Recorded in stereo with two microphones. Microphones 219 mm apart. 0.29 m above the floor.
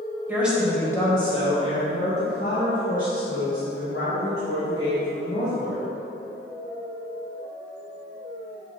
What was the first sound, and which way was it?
A woman speaking, 10° right (ahead or behind).